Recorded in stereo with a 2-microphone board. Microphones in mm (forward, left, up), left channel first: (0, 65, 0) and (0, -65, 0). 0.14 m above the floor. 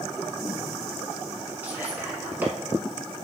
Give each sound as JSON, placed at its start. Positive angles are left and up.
{"t": 1.6, "sound": "whispering", "side_deg": -15, "distance_m": 1.2}